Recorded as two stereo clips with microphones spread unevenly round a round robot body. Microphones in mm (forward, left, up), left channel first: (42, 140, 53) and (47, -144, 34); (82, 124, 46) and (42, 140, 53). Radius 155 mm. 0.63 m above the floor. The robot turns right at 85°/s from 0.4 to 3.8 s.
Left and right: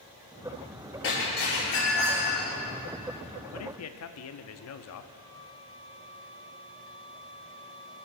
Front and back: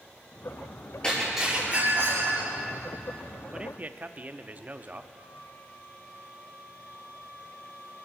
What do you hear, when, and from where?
1.0 s breaking glass: 50° left, 8 m; by 2.5 s 175° left, 8 m
3.5 s a man speaking: 80° left, 1.0 m; by 5.0 s 105° left, 1.0 m
5.1 s a flute: 170° right, 4.5 m